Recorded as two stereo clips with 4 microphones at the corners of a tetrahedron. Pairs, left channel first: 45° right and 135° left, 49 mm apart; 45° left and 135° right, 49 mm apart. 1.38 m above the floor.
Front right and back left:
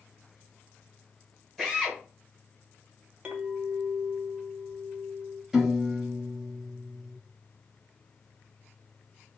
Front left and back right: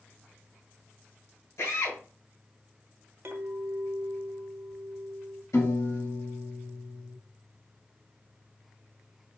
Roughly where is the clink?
Behind.